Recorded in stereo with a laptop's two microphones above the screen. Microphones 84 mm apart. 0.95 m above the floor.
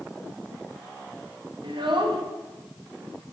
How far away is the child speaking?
About 0.9 m.